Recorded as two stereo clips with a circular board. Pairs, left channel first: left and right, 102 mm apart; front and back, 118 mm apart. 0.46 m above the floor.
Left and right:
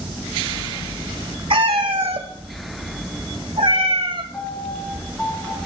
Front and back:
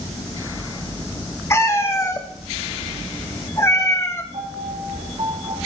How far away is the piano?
About 4 m.